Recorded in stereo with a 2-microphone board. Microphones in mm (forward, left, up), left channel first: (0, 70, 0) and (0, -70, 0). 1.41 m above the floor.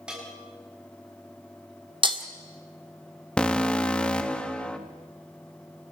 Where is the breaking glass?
35° right (ahead or behind), 1.7 m.